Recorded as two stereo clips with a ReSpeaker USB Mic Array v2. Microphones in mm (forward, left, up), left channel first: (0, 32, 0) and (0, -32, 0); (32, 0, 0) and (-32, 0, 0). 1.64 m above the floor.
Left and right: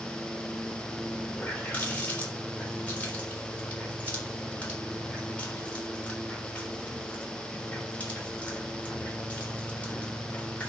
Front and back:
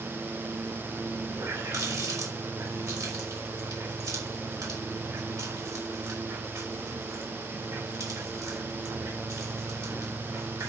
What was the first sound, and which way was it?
A running tap, 160° left.